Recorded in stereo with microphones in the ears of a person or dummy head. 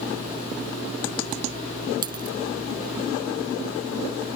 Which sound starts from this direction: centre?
A dropped coin, at 2.0 s.